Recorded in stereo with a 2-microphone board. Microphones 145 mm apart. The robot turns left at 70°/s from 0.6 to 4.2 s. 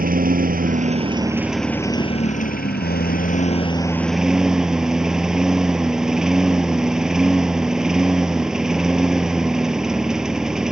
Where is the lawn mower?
110° right; by 10.7 s 5° right.